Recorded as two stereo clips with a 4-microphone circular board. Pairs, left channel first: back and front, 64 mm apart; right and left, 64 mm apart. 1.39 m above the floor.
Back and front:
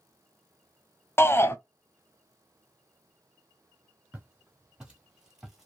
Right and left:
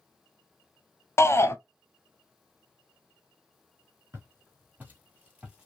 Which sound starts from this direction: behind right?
A shout, at 1.2 s.